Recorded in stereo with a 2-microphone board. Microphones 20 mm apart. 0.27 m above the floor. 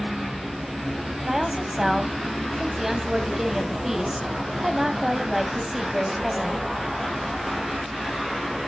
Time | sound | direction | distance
1.2 | a woman speaking | 20° right (ahead or behind) | 1.6 m